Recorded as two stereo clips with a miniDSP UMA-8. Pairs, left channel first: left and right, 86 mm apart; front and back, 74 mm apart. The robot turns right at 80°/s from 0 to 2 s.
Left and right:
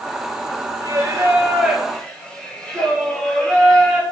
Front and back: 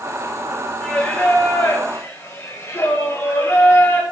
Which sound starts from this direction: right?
Singing, at 0.8 s.